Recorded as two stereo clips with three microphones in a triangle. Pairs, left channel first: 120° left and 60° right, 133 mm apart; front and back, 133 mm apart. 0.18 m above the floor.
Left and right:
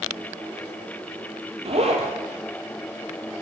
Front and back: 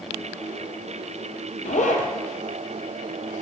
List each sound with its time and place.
1.6 s a zipper: 20° right, 1.0 m